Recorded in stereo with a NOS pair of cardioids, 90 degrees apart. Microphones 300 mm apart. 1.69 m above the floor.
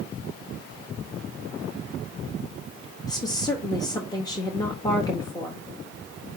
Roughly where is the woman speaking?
Ahead.